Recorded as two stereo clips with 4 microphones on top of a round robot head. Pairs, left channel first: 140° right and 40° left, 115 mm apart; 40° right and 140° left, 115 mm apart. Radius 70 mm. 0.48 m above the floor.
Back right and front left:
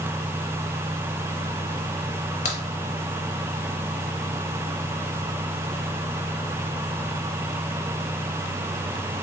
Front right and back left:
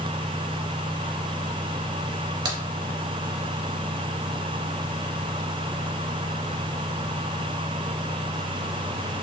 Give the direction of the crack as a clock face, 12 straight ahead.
5 o'clock.